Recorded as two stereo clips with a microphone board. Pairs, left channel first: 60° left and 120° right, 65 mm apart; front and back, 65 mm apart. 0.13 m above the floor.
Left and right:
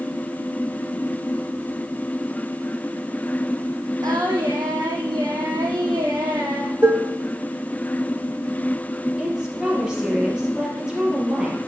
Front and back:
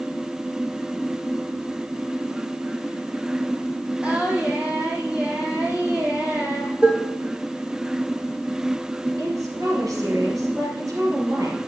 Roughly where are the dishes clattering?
Behind right.